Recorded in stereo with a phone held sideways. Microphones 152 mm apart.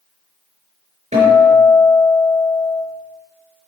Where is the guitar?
50° right (ahead or behind), 4 m.